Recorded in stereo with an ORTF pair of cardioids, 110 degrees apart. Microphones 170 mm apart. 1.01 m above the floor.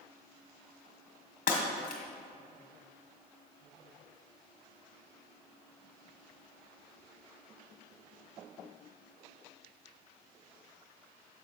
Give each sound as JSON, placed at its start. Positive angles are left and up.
{"t": 1.5, "sound": "breaking glass", "azimuth_deg": 55, "distance_m": 1.6}